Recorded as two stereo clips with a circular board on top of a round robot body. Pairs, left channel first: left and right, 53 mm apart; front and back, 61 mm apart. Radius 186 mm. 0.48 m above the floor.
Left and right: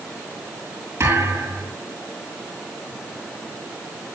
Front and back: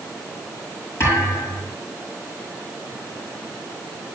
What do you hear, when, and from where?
1.0 s a thud: 50° right, 8 m